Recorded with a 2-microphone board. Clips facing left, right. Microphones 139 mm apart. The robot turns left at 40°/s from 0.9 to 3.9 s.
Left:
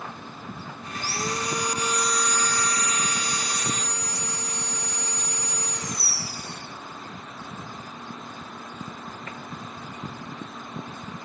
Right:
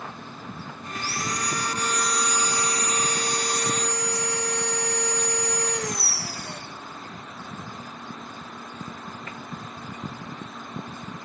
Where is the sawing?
50° left, 2 m; by 6.6 s 70° right, 2 m.